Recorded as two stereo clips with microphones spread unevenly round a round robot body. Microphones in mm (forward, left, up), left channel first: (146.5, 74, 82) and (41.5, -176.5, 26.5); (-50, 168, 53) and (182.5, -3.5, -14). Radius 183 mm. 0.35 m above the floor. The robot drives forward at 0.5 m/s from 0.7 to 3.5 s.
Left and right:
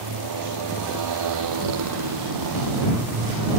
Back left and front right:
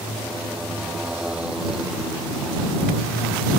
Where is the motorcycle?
125° right.